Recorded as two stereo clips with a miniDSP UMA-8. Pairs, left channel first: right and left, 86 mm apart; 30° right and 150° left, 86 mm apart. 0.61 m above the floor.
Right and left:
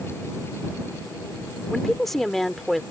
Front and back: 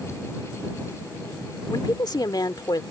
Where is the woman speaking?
5° right.